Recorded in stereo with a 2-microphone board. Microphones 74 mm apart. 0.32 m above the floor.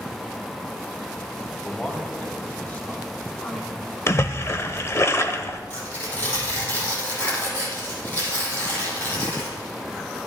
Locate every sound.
1.6 s a man speaking: 10° left (ahead or behind), 1.8 m; by 4.0 s 25° left (ahead or behind), 3 m
4.1 s a splash: 35° left (ahead or behind), 0.6 m
5.7 s tearing paper: 35° left (ahead or behind), 5.5 m